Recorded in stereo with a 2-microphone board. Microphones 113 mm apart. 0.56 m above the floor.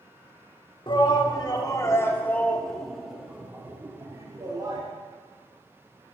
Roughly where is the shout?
Left.